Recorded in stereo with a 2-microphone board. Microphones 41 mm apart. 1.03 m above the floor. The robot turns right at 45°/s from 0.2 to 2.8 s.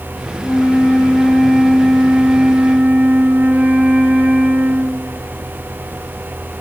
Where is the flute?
120° left, 1.9 m; by 5.2 s 130° right, 1.9 m.